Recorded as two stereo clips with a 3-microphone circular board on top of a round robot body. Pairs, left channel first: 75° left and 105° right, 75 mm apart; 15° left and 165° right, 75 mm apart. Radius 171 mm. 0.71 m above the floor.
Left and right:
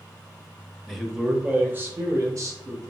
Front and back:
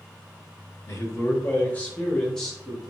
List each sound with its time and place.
0.9 s a man speaking: 15° right, 1.0 m; by 2.9 s 75° right, 1.4 m